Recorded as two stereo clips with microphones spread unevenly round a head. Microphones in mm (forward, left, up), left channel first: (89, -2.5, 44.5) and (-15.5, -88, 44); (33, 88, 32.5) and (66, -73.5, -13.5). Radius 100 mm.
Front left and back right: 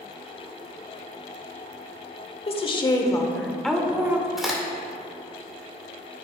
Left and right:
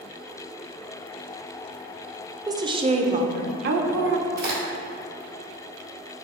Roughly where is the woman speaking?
Ahead.